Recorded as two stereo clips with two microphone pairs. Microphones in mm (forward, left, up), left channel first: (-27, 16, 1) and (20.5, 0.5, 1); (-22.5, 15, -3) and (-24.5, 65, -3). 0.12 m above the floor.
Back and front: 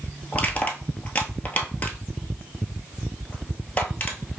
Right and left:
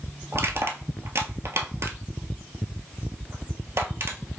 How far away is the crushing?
About 0.8 m.